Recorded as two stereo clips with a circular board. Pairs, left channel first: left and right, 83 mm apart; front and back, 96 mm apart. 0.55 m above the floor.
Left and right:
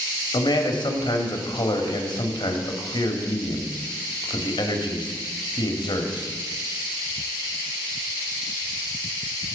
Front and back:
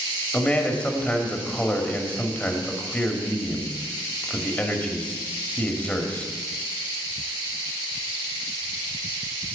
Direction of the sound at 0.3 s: 75° left.